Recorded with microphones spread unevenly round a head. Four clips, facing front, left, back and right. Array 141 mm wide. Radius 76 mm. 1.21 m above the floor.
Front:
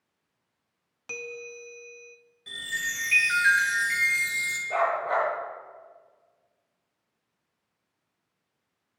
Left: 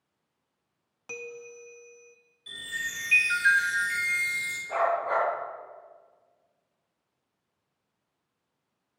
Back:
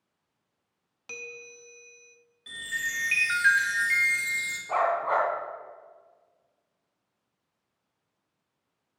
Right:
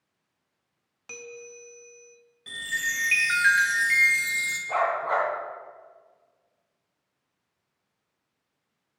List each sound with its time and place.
1.1 s a bell: 15° left, 0.6 m
2.5 s a chime: 80° right, 1.8 m
4.7 s a dog barking: 150° right, 3.5 m